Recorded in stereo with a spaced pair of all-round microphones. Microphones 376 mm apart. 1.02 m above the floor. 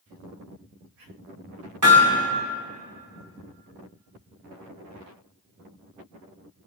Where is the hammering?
55° right (ahead or behind), 3.5 m.